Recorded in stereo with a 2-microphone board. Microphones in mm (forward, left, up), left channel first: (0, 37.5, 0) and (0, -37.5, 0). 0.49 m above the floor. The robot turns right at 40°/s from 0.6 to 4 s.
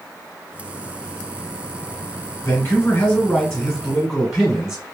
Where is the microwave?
I don't hear a microwave.